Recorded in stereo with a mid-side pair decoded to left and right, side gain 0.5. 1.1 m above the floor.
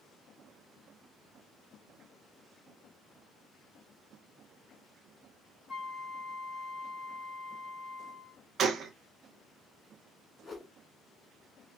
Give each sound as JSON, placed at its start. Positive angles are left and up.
{"t": 5.7, "sound": "a flute", "azimuth_deg": -20, "distance_m": 3.0}
{"t": 8.6, "sound": "a gunshot", "azimuth_deg": -50, "distance_m": 0.7}
{"t": 10.4, "sound": "a whoosh", "azimuth_deg": 25, "distance_m": 1.6}